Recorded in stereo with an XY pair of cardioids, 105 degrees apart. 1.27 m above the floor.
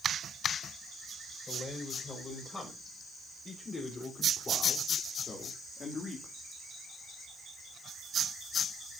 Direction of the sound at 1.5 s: 30° left.